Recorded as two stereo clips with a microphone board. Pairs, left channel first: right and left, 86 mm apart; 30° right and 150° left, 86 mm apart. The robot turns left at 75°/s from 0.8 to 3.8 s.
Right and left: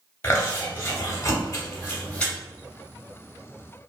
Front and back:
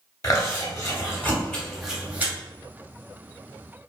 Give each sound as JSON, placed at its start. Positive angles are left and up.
{"t": 0.2, "sound": "chewing", "azimuth_deg": -50, "distance_m": 0.8}